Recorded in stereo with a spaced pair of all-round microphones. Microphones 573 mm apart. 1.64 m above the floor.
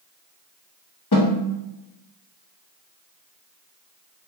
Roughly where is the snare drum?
Left.